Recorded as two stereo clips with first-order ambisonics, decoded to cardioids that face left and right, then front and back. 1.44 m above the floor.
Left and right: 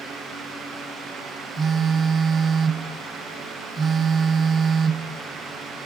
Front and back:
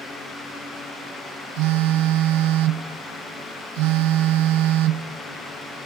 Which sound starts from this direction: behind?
A phone buzzing, at 1.6 s.